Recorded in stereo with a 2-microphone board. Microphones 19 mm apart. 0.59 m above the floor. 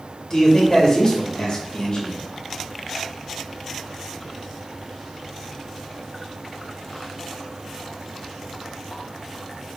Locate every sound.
0.3 s a man speaking: 40° left (ahead or behind), 2.5 m